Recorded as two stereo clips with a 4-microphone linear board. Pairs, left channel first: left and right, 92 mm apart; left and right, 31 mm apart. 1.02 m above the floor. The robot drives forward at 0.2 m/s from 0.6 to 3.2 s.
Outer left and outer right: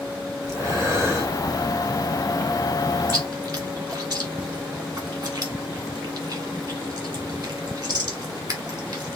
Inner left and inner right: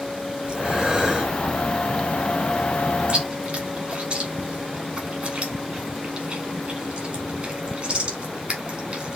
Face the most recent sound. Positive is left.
turn(degrees=-45)  # may be behind; listen again after turning